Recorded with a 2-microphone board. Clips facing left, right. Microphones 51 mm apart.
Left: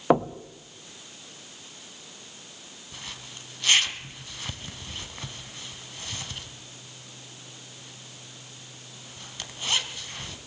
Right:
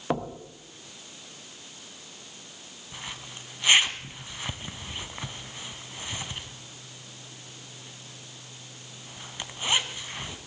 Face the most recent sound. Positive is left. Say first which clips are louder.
# right 2 dB
turn(degrees=-20)  # may be behind; listen again after turning